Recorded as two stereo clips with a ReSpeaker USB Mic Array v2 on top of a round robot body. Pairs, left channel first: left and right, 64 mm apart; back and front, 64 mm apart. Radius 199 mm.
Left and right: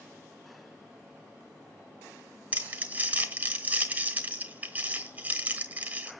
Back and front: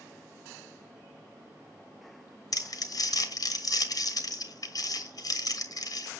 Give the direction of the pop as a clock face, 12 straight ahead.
I don't hear a pop.